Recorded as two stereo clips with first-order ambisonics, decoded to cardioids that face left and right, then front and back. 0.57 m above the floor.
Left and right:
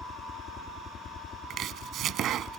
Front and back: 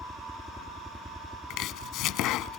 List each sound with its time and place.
0.0 s a helicopter: 90° left; by 2.6 s 85° left
1.5 s chopping: 40° right